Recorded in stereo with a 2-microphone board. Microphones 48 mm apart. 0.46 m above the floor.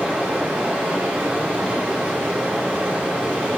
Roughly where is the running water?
Right.